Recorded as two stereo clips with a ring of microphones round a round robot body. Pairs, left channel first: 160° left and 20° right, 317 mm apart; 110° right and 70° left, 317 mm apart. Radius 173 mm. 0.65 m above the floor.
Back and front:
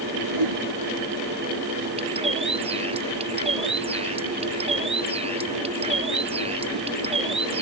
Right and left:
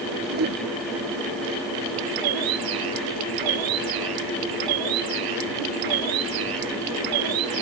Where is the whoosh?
5° left.